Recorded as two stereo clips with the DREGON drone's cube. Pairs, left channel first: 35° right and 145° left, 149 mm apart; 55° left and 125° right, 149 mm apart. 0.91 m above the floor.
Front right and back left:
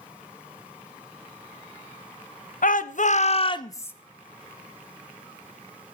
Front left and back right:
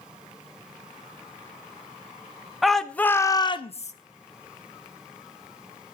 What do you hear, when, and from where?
2.6 s a shout: 35° right, 0.9 m; by 3.9 s 40° left, 0.6 m